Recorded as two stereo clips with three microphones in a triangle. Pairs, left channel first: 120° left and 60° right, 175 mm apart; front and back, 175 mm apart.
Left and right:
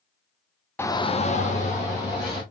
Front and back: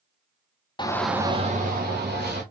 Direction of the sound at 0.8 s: 50° left.